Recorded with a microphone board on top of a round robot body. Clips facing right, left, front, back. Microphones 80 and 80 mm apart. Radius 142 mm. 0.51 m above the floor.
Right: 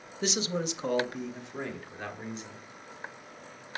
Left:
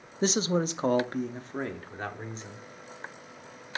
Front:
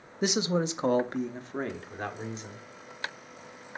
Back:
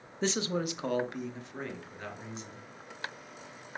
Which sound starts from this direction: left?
A man speaking, at 0.2 s.